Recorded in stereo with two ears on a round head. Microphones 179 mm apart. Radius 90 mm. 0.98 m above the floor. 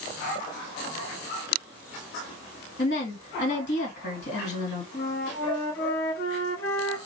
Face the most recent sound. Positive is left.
turn(degrees=55)  # may be behind; listen again after turning